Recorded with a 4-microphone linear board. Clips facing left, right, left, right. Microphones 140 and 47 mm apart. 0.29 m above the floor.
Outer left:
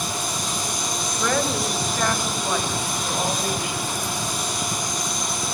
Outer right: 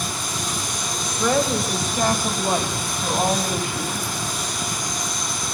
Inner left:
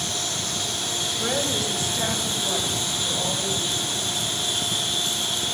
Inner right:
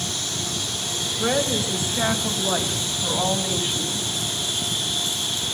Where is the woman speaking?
15° right (ahead or behind), 1.9 m; by 4.1 s 45° right (ahead or behind), 3 m.